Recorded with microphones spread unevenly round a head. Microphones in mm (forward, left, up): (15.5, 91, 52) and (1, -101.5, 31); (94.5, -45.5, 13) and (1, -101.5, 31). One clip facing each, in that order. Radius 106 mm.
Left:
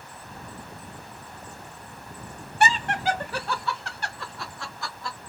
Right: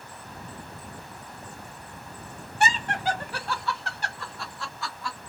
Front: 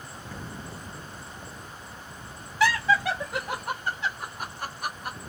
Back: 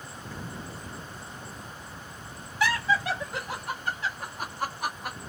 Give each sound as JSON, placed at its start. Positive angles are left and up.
{"t": 2.6, "sound": "laughter", "azimuth_deg": 45, "distance_m": 1.0}